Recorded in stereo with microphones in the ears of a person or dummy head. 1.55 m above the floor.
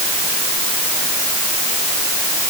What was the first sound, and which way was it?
Only background noise.